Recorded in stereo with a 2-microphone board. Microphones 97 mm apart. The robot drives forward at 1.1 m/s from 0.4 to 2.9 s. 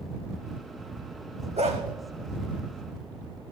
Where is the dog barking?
80° right, 3 m; by 1.8 s 85° right, 3 m.